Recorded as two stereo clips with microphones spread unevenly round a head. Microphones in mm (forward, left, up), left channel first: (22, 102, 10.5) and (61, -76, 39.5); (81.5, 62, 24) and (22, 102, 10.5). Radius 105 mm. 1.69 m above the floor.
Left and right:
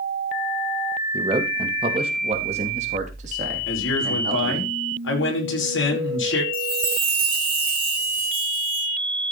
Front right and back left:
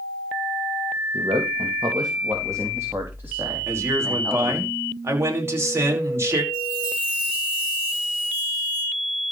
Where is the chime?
130° right, 1.9 m.